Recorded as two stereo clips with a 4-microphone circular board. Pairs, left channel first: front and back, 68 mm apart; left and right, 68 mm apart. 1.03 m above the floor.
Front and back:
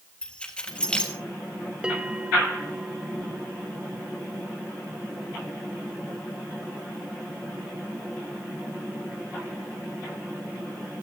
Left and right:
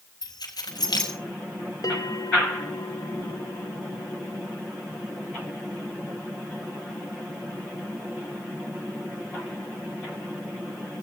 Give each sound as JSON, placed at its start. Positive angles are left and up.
{"t": 0.2, "sound": "keys jangling", "azimuth_deg": 75, "distance_m": 3.5}
{"t": 1.8, "sound": "a bell", "azimuth_deg": 105, "distance_m": 1.6}